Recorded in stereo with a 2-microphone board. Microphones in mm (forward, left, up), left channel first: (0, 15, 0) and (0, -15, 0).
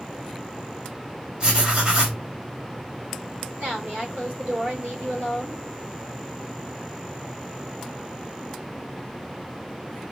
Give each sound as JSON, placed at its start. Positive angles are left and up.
{"t": 1.4, "sound": "writing", "side_deg": -40, "distance_m": 3.0}
{"t": 3.6, "sound": "a woman speaking", "side_deg": -75, "distance_m": 3.0}